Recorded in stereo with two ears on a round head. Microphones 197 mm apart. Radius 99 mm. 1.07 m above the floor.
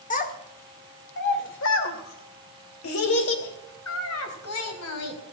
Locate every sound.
0.1 s a child speaking: 35° left (ahead or behind), 1.6 m; by 5.2 s 75° left (ahead or behind), 4 m